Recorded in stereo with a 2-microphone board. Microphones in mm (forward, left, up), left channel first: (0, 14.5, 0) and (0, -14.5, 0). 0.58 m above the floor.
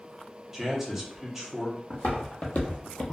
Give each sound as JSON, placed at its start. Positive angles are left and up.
{"t": 0.5, "sound": "a man speaking", "side_deg": -15, "distance_m": 0.8}
{"t": 1.9, "sound": "footsteps", "side_deg": 60, "distance_m": 1.2}